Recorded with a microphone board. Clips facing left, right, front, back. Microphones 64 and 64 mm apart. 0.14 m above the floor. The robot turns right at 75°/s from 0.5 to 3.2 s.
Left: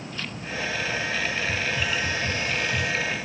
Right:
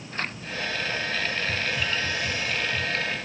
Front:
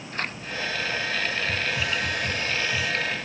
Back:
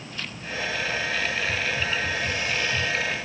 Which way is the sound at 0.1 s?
45° right.